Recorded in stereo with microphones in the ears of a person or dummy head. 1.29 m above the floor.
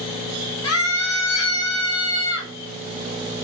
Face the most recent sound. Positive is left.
turn(degrees=85)